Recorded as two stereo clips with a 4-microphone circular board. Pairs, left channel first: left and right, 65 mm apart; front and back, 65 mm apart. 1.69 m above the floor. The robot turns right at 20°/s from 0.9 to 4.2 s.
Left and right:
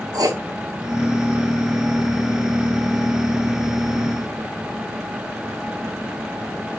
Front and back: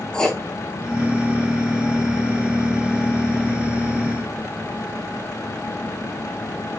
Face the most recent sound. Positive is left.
turn(degrees=-10)